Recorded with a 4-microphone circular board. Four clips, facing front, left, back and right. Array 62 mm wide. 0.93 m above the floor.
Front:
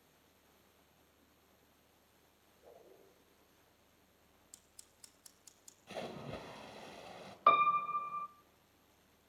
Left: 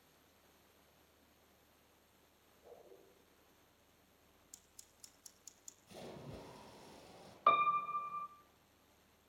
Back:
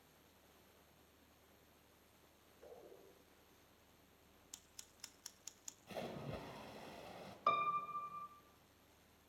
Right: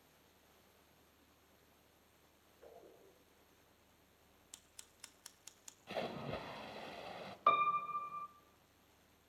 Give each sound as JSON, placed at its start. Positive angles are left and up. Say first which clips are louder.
{"t": 2.6, "sound": "a whoosh", "louder": "even, back 1 dB", "azimuth_deg": -125, "distance_m": 8.0}
{"t": 4.5, "sound": "scissors", "louder": "right 3 dB, back 2 dB", "azimuth_deg": -115, "distance_m": 1.2}
{"t": 5.9, "sound": "a splash", "louder": "right 9 dB, front 3 dB", "azimuth_deg": -75, "distance_m": 1.6}
{"t": 7.5, "sound": "a piano", "louder": "left 1 dB, front 9 dB", "azimuth_deg": 5, "distance_m": 0.8}